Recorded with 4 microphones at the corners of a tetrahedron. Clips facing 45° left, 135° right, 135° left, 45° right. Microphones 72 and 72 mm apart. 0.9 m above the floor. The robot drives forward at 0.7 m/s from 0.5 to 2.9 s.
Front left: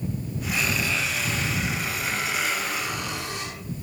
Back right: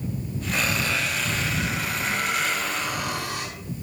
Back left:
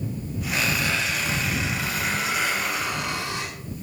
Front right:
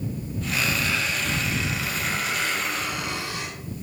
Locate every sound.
0.5 s a squeak: 165° right, 3.5 m; by 3.5 s 170° right, 5 m